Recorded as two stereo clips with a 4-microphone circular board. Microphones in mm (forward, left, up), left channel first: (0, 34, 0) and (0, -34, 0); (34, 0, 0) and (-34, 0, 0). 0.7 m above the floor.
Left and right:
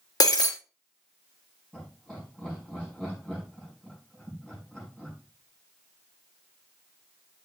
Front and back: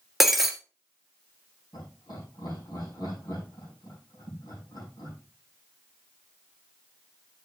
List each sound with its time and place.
0.2 s breaking glass: 95° left, 1.6 m
1.7 s laughter: 15° left, 6.5 m